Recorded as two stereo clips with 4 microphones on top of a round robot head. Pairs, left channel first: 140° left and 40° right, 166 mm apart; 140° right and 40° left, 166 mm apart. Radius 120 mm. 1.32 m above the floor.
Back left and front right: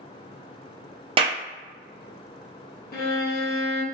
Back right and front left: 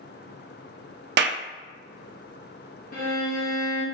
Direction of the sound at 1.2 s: 20° left.